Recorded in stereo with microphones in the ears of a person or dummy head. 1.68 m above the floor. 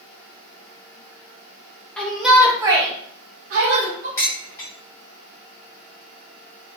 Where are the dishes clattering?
25° left (ahead or behind), 0.9 m.